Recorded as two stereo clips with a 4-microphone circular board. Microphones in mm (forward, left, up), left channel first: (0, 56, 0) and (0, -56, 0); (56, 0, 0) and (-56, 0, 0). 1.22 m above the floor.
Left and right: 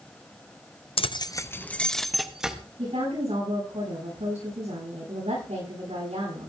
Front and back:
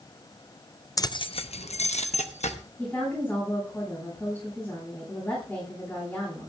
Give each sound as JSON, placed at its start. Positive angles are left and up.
{"t": 1.0, "sound": "keys jangling", "azimuth_deg": 60, "distance_m": 0.5}
{"t": 2.8, "sound": "a woman speaking", "azimuth_deg": -70, "distance_m": 10.0}